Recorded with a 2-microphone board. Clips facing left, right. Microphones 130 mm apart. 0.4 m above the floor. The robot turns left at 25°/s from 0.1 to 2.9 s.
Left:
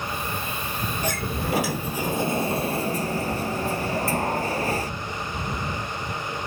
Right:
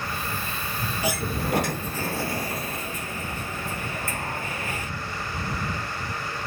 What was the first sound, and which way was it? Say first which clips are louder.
A sliding door: right 2 dB; 170° right.